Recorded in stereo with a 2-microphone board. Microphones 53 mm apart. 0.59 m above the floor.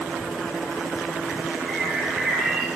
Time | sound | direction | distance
1.6 | a bird | 5° left (ahead or behind) | 5.5 m